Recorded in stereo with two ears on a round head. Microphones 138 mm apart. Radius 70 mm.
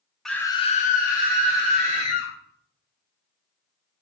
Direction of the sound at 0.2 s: Centre (ahead or behind).